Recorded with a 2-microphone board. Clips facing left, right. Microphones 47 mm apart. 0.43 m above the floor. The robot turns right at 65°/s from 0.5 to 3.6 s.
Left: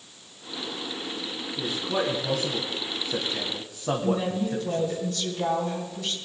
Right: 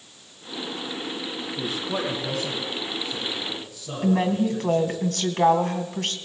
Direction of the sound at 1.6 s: 35° right (ahead or behind).